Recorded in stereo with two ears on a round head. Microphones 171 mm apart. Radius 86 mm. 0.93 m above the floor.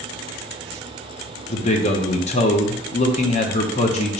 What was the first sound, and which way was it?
A man speaking, 35° left (ahead or behind).